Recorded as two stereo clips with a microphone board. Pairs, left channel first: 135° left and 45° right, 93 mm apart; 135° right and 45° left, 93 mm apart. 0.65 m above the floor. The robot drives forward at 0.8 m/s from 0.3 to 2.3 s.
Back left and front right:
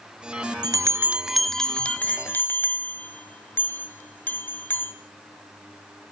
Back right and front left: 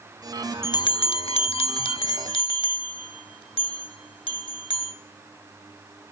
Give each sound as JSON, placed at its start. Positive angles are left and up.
{"t": 0.6, "sound": "a bell", "azimuth_deg": -85, "distance_m": 0.6}